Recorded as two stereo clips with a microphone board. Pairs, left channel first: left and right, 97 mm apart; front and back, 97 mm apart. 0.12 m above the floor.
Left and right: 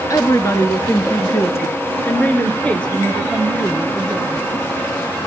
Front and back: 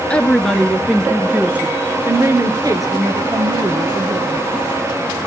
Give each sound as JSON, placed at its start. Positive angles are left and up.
{"t": 0.1, "sound": "a woman speaking", "azimuth_deg": 65, "distance_m": 1.9}